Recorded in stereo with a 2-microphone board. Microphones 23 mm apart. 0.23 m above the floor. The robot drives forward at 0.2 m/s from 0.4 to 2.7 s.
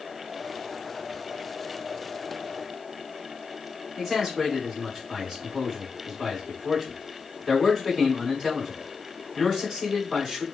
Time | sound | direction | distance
4.0 | a man speaking | 20° left (ahead or behind) | 1.9 m